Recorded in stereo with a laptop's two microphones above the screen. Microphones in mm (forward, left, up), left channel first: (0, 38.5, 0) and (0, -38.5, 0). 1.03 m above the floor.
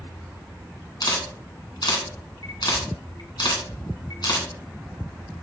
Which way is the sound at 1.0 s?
65° left (ahead or behind).